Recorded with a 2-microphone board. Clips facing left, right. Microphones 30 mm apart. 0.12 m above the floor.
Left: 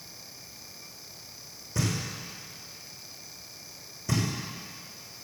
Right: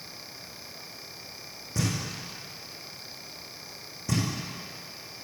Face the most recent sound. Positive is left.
turn(degrees=0)  # may be behind; listen again after turning